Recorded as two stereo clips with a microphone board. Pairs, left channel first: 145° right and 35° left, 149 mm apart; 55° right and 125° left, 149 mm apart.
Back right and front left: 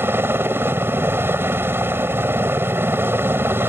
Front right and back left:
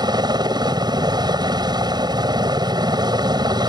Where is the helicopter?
95° left.